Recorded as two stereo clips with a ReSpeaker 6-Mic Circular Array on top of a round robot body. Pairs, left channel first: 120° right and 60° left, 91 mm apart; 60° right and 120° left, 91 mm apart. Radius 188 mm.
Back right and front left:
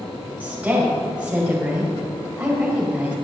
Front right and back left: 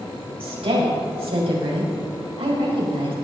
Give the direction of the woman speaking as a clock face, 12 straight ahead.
8 o'clock.